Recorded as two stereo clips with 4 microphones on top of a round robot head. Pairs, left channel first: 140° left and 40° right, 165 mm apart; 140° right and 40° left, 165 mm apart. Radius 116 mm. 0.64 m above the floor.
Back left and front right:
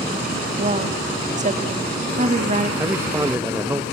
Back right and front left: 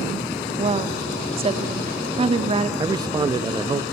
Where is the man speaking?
20° left, 0.5 m.